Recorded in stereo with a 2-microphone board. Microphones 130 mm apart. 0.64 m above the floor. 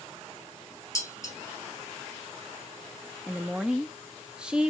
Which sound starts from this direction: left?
Dishes clattering, at 0.9 s.